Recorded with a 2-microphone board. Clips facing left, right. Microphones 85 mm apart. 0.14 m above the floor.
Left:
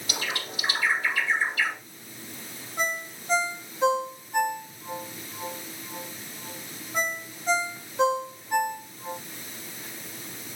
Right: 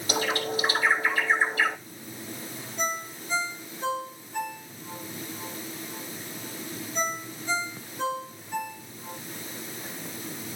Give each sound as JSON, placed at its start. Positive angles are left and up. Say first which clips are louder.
{"t": 0.1, "sound": "a bird", "louder": "right 7 dB", "side_deg": -35, "distance_m": 3.0}
{"t": 2.8, "sound": "a ringtone", "louder": "left 1 dB", "side_deg": 80, "distance_m": 4.5}